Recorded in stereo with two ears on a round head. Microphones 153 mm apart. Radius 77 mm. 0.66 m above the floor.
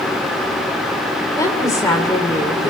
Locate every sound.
1.4 s a woman speaking: 20° left (ahead or behind), 2.5 m